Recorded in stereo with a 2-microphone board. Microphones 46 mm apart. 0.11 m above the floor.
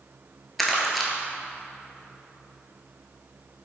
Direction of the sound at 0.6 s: Centre (ahead or behind).